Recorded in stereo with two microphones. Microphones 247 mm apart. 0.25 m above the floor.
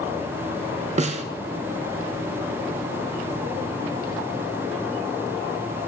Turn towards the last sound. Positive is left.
turn(degrees=-30)  # may be behind; listen again after turning